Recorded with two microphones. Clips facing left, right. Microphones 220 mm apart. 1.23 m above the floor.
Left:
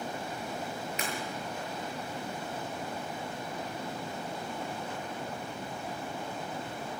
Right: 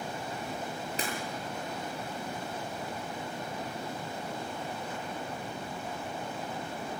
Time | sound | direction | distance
1.0 | breaking glass | 35° right (ahead or behind) | 8 m